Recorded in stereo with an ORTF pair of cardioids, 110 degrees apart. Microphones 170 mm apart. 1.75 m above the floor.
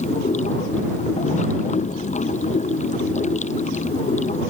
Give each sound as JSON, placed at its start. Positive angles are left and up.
{"t": 0.0, "sound": "running water", "azimuth_deg": 45}